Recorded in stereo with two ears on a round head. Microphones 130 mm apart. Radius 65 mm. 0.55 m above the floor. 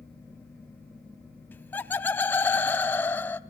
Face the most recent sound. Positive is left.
turn(degrees=10)  # may be behind; listen again after turning